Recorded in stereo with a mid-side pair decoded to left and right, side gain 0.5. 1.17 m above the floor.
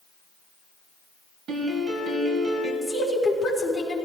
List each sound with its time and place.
1.5 s a piano: 45° right, 3.5 m
2.8 s a woman speaking: 5° left, 4 m